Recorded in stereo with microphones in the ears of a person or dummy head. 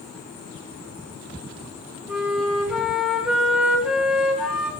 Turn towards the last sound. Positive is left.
turn(degrees=0)  # may be behind; listen again after turning